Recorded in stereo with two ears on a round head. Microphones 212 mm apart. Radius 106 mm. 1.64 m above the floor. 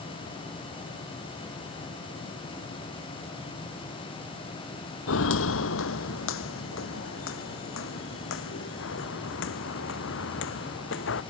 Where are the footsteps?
60° left (ahead or behind); by 11.2 s 55° left (ahead or behind).